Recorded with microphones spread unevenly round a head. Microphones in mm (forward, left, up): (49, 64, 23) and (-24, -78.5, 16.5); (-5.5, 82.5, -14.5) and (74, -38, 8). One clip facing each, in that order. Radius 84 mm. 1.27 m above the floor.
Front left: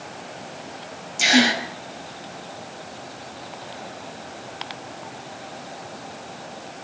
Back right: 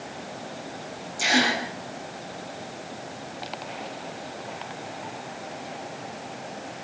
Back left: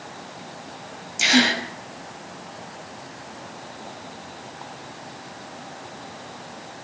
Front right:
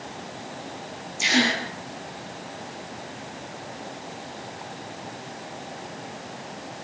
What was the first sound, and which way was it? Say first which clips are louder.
A gasp: front left 5 dB, back left 3 dB; 125° left.